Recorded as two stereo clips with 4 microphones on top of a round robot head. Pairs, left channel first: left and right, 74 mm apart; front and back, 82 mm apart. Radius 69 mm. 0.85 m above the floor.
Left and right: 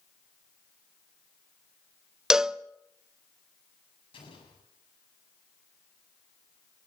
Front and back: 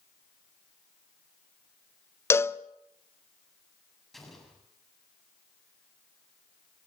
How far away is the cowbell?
About 0.7 m.